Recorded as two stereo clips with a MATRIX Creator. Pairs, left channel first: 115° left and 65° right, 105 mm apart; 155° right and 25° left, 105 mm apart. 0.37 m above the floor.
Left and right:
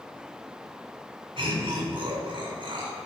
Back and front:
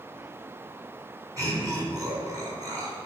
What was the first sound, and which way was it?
Laughter, 30° right.